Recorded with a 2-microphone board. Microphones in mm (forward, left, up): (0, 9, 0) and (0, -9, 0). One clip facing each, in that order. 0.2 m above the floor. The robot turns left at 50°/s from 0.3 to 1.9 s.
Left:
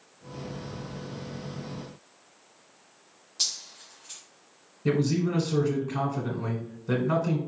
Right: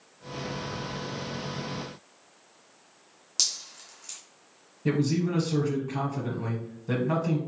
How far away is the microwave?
No microwave in this recording.